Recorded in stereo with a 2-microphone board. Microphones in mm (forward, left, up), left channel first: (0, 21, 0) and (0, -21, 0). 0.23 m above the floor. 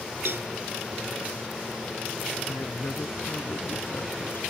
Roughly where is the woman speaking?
Left.